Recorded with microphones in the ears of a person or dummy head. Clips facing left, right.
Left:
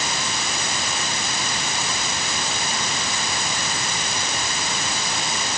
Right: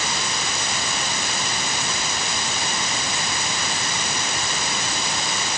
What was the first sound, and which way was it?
Only background noise.